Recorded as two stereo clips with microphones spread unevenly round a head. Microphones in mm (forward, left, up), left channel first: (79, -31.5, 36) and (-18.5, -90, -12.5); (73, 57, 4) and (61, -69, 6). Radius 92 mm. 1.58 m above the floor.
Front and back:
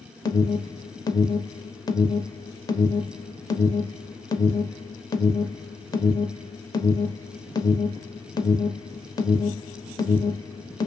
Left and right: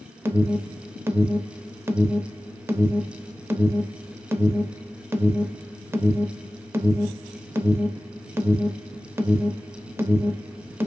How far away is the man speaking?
I don't hear a man speaking.